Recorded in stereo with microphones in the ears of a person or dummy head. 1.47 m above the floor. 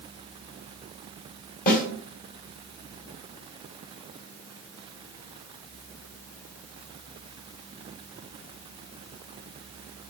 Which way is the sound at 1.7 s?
45° left (ahead or behind).